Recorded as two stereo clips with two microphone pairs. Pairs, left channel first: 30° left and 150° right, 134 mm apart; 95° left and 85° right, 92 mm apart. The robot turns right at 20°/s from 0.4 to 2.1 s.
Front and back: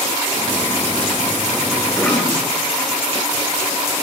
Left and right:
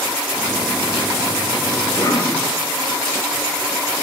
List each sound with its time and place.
1.9 s a cough: 100° left, 1.0 m; by 2.4 s 105° left, 1.0 m